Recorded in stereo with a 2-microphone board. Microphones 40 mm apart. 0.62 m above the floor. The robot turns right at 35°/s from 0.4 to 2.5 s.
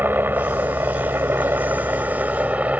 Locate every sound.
0.0 s a helicopter: 120° right; by 2.8 s 45° right